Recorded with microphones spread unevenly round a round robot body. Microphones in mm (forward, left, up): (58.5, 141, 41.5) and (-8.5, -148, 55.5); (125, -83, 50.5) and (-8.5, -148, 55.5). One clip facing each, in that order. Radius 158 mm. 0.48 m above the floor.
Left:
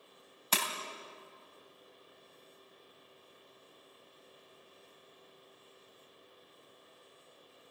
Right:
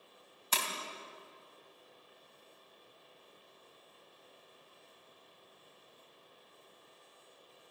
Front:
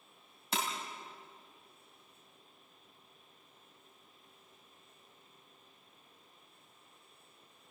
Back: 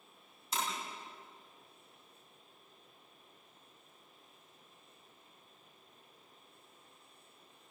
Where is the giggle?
I don't hear a giggle.